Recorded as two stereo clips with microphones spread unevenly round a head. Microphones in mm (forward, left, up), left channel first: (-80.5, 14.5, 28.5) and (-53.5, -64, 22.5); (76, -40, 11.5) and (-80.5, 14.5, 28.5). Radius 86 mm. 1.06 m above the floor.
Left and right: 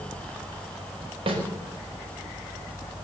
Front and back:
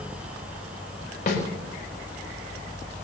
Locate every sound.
1.3 s a snare drum: 65° right, 4.5 m